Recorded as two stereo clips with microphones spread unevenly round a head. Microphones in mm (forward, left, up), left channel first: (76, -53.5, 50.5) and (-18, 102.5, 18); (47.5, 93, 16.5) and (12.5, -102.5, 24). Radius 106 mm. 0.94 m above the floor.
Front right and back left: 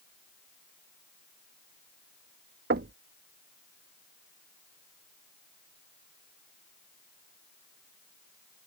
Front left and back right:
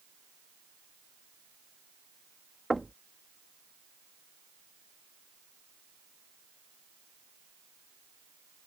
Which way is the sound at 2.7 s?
170° left.